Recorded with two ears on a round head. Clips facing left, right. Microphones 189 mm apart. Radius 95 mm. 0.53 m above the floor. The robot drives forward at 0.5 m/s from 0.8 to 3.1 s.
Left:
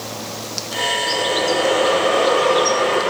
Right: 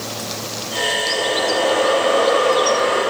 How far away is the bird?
About 8 m.